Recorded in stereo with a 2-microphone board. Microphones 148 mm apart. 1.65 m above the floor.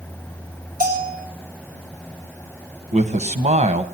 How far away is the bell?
About 3.5 m.